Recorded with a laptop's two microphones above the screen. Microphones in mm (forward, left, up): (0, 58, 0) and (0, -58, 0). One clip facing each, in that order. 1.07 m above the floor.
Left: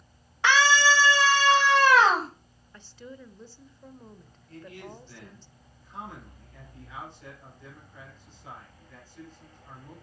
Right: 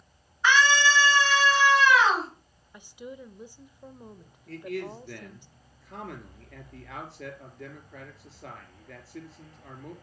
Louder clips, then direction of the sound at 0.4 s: Left 1 dB; 80° left.